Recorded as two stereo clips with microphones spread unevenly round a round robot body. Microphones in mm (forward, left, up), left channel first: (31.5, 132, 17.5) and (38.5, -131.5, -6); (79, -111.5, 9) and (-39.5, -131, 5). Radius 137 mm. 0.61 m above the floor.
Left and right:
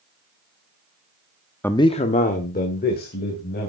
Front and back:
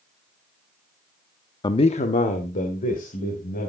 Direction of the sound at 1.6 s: 5° left.